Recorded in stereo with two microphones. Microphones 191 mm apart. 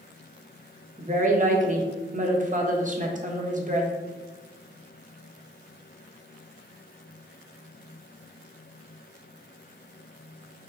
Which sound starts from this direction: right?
A woman speaking, at 1.0 s.